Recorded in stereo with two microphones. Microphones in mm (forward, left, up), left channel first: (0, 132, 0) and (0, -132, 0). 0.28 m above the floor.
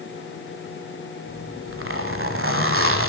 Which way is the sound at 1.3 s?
50° right (ahead or behind).